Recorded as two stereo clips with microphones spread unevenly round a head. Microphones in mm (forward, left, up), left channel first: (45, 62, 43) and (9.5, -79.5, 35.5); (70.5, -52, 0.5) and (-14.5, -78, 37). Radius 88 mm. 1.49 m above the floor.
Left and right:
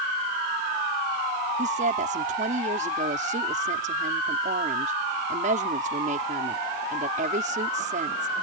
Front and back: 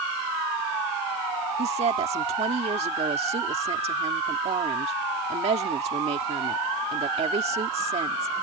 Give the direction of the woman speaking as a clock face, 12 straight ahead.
5 o'clock.